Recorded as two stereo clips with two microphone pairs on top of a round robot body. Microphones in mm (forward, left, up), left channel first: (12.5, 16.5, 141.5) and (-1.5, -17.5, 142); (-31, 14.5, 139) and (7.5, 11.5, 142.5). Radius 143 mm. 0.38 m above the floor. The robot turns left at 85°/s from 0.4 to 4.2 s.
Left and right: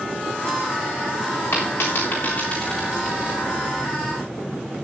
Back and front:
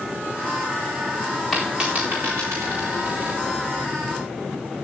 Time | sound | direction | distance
1.5 | a dropped coin | 85° left | 4 m